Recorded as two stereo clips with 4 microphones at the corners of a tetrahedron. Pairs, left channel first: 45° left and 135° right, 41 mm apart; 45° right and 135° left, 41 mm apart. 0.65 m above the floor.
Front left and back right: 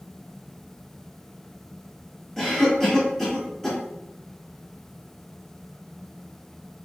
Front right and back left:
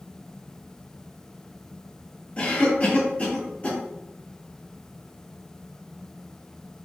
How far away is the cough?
About 1.4 m.